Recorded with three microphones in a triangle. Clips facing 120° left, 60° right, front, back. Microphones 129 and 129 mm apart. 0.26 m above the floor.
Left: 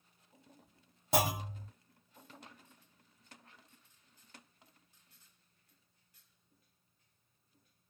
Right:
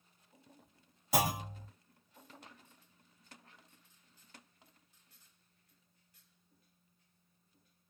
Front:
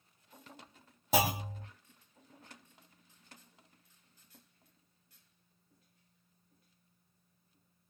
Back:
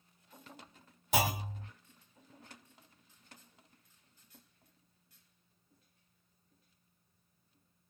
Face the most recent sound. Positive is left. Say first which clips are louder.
# left 1 dB, front 2 dB
turn(degrees=55)